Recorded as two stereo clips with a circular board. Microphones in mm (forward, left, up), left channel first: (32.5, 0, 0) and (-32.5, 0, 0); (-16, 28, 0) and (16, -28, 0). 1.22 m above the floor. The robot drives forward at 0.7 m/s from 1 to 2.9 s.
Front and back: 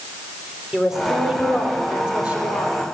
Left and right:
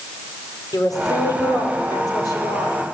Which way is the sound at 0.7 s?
100° left.